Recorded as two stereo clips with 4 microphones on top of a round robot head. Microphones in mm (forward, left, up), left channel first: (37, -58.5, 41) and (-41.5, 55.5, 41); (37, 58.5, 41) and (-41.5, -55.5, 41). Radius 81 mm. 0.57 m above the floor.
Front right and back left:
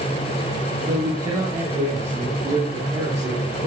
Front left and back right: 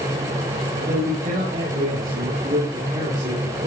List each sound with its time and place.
0.9 s a man speaking: 175° right, 8 m; by 3.7 s straight behind, 9.5 m